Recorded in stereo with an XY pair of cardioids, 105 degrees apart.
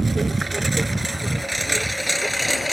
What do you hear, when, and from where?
0.0 s a lawn mower: 30° right; by 2.7 s straight ahead